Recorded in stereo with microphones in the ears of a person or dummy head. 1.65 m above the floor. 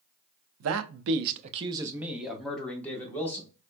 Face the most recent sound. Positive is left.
turn(degrees=15)  # may be behind; listen again after turning